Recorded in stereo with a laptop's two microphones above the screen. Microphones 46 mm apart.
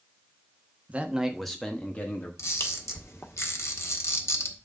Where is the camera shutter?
85° left, 1.4 m.